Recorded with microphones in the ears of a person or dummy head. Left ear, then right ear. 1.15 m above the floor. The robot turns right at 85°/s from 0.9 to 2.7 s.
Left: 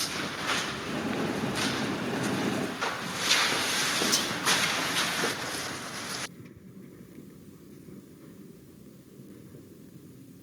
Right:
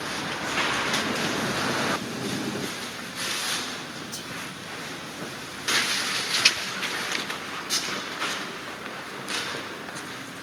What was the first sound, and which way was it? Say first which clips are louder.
Whispering: left 8 dB; 35° left (ahead or behind).